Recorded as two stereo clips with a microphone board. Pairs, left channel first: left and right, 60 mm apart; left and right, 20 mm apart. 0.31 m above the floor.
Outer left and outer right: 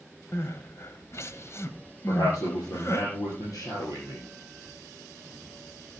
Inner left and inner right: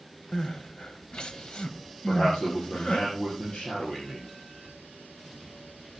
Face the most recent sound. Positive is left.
turn(degrees=75)  # may be behind; listen again after turning